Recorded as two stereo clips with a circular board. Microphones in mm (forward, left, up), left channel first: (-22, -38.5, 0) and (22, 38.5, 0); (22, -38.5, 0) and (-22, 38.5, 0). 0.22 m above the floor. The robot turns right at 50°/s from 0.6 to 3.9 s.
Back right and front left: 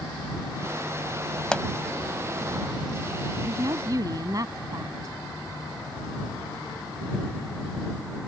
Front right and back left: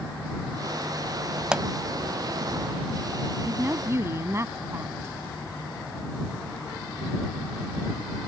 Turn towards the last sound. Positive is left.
turn(degrees=75)